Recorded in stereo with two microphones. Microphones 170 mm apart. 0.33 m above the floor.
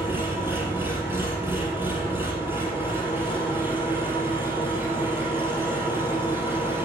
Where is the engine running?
15° right (ahead or behind), 5 m.